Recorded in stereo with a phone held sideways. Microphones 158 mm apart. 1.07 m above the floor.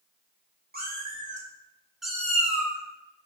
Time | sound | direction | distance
0.7 | a cat meowing | 70° right (ahead or behind) | 0.9 m